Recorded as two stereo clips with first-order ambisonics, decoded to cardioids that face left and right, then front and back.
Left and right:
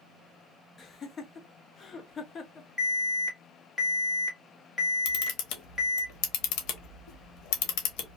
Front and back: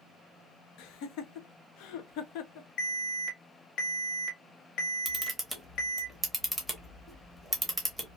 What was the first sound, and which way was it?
Laughter, 25° left.